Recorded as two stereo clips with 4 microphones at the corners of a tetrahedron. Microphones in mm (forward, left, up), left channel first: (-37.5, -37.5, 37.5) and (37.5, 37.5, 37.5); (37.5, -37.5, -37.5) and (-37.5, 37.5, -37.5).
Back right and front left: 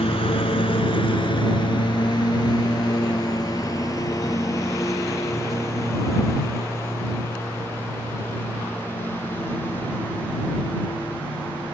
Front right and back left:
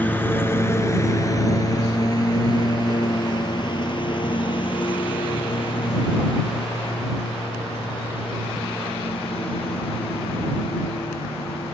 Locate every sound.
0.0 s a lawn mower: 120° right; by 11.7 s 60° right